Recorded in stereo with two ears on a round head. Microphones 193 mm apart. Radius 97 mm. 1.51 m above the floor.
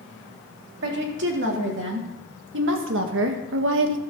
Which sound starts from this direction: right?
A woman speaking, at 0.8 s.